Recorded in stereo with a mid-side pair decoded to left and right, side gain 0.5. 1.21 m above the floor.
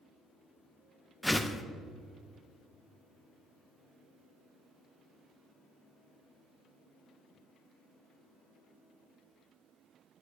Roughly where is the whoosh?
Ahead.